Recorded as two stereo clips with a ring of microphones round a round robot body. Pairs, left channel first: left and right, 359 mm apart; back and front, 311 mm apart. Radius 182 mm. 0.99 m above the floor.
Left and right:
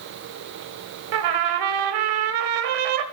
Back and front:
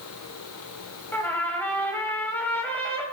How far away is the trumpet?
About 1.2 m.